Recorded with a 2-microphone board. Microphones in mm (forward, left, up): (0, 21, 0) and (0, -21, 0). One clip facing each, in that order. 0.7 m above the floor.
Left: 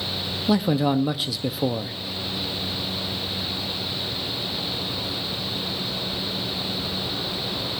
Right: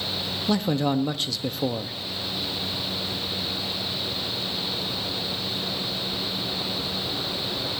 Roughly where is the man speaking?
Centre.